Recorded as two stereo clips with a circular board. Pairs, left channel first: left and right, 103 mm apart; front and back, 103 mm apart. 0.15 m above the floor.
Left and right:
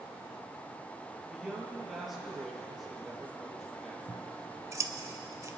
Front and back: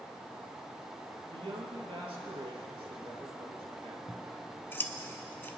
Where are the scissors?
55° right, 0.8 m.